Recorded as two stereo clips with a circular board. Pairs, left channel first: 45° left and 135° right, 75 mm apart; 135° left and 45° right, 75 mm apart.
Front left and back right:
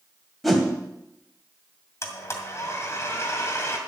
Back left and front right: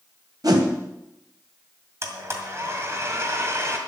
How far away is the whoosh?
About 2 m.